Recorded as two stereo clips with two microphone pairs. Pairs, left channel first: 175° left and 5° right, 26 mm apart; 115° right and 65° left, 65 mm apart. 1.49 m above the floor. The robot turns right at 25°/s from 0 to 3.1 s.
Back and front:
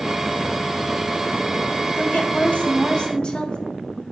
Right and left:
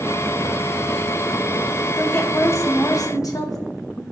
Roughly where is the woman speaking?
Behind.